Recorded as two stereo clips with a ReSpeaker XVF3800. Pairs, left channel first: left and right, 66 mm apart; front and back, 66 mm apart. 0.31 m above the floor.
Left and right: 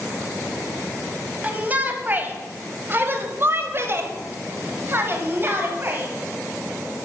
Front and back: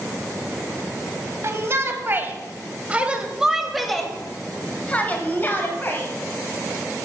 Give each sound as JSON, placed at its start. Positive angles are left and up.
{"t": 1.4, "sound": "a shout", "azimuth_deg": -145, "distance_m": 2.5}